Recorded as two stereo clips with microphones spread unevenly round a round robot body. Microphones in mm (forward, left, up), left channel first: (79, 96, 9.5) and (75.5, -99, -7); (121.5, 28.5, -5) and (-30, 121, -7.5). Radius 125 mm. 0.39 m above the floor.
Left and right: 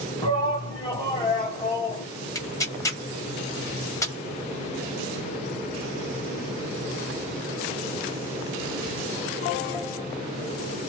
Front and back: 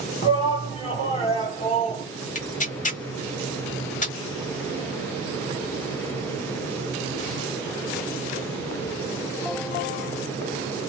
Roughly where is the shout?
Ahead.